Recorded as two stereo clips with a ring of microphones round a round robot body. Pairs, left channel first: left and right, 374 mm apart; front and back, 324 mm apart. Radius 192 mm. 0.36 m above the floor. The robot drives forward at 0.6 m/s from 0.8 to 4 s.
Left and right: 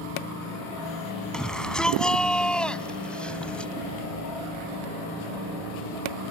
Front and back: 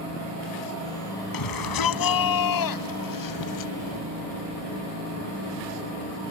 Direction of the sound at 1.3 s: Straight ahead.